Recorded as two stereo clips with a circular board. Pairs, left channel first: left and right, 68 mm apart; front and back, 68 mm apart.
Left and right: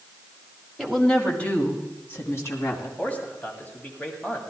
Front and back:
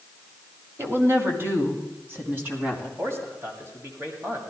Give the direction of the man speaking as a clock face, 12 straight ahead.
7 o'clock.